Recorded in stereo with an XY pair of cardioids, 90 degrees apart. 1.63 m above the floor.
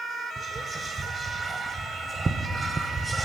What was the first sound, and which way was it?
Whispering, 25° right.